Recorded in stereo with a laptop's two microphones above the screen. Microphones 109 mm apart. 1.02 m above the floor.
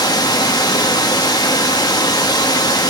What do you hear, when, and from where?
0.0 s running water: 35° left (ahead or behind), 1.2 m